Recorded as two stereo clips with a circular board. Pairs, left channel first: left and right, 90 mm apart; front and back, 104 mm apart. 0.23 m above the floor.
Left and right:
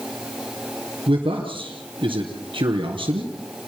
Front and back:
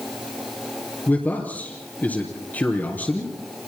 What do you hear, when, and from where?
1.1 s a man speaking: 70° right, 3 m